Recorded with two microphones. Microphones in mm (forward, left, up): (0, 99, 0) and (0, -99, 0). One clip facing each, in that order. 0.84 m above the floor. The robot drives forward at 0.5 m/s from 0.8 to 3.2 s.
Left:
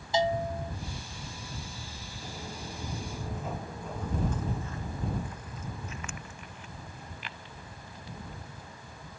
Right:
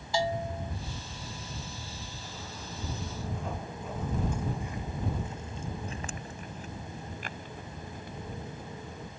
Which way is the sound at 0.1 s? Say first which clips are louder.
Left 3 dB; 20° left (ahead or behind).